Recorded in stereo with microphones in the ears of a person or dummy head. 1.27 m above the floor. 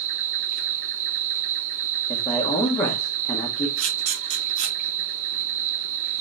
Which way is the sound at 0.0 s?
40° right (ahead or behind).